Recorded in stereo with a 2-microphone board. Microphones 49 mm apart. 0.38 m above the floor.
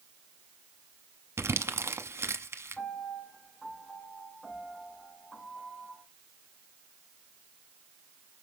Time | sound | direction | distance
1.4 | crumpling | 65° right (ahead or behind) | 0.8 m
2.8 | a piano | 15° left (ahead or behind) | 4.5 m